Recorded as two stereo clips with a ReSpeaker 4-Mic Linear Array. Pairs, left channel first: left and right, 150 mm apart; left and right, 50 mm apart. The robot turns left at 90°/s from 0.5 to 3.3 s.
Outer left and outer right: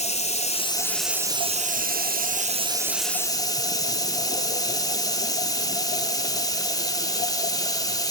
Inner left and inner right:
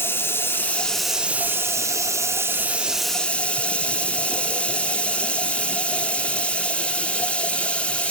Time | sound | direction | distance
0.0 | running water | 50° left | 0.7 m